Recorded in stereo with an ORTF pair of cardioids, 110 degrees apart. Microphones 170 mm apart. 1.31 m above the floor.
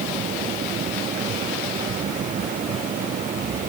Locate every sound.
0.0 s a fan: 50° right